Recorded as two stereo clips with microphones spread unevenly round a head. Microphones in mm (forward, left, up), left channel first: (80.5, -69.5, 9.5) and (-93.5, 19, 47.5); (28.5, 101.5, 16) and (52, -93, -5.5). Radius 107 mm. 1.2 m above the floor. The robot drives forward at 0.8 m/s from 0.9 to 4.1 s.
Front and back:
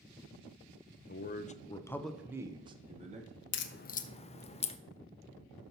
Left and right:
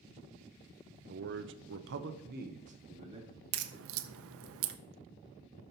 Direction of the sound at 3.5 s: 50° right.